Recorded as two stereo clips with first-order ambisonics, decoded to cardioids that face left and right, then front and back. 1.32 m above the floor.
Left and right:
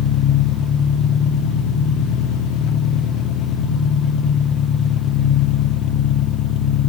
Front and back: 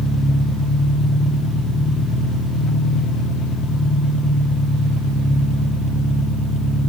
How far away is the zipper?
I don't hear a zipper.